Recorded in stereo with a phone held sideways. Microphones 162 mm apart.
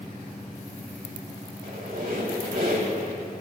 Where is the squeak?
85° right, 4 m.